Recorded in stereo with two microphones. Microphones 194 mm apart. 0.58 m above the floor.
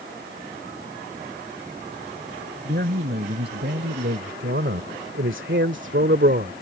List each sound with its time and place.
2.6 s a man speaking: 55° right (ahead or behind)